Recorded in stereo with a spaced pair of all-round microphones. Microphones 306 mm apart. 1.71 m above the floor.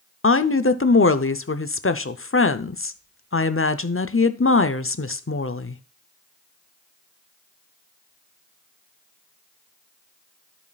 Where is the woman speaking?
45° left (ahead or behind), 0.7 m.